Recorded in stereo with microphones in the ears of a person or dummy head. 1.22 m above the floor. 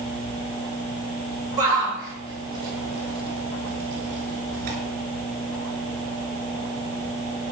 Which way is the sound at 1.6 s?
15° right (ahead or behind).